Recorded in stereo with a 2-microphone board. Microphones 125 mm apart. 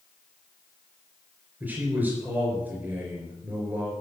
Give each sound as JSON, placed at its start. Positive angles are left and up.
{"t": 1.6, "sound": "a man speaking", "side_deg": -10, "distance_m": 3.5}